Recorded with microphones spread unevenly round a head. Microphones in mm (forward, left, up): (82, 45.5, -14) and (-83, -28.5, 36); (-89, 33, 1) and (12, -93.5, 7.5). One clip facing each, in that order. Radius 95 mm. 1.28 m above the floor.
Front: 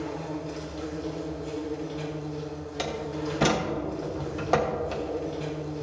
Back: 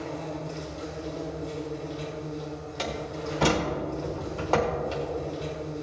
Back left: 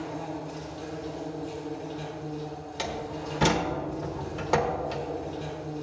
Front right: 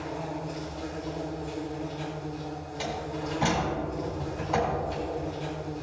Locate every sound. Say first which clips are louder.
0.0 s an insect: front 1 dB, even; 30° left, 3 m
2.8 s a door slam: front 2 dB, even; 95° left, 1.2 m